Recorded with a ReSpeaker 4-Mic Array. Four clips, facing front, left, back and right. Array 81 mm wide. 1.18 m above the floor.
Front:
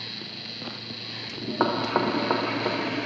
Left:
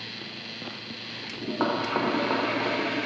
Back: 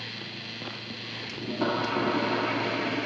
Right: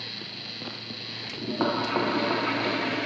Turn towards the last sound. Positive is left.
turn(degrees=5)